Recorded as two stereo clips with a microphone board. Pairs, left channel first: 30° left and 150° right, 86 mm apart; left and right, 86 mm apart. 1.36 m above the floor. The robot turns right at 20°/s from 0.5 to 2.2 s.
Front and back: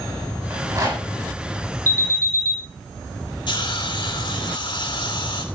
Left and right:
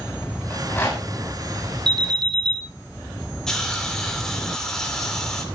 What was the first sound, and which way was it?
A rattle, 150° left.